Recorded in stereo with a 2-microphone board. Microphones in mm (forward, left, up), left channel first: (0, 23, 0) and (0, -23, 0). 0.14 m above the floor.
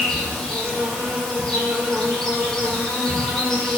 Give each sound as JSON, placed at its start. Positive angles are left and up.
{"t": 0.0, "sound": "an insect", "side_deg": 15, "distance_m": 0.8}